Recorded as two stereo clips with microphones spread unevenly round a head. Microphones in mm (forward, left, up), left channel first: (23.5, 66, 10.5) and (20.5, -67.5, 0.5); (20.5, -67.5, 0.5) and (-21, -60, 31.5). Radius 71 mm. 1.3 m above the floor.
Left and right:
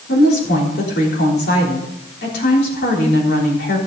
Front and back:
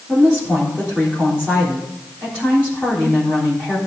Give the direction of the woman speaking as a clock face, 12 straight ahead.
9 o'clock.